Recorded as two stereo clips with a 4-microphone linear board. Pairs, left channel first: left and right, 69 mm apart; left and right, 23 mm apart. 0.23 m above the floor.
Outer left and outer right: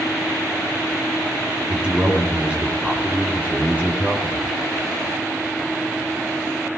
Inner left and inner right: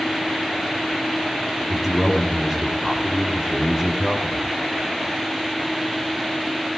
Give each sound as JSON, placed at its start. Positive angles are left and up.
{"t": 1.7, "sound": "a man speaking", "side_deg": -15, "distance_m": 3.0}